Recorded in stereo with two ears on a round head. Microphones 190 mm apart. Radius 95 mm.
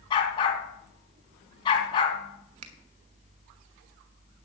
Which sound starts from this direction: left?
A dog barking, at 0.1 s.